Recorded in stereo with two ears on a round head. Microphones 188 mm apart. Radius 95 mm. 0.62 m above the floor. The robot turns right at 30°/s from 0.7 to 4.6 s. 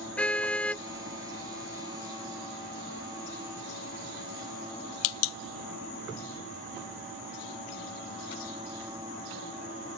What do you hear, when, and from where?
0.2 s a car horn: 5° left (ahead or behind); by 0.8 s 10° left (ahead or behind)